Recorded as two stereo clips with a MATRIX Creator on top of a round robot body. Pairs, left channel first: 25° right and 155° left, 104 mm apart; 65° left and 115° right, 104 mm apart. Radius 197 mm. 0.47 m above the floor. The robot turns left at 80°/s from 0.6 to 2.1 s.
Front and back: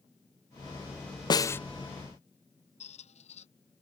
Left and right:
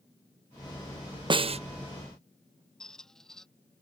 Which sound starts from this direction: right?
A snare drum, at 1.3 s.